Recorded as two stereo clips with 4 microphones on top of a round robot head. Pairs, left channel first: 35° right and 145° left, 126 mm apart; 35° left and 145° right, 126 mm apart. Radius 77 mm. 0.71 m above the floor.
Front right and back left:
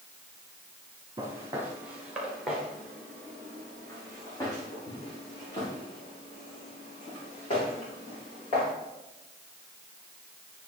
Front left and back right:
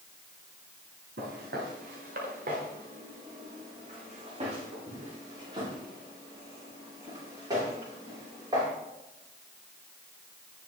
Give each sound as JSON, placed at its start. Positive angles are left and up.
{"t": 1.2, "sound": "footsteps", "azimuth_deg": -150, "distance_m": 3.5}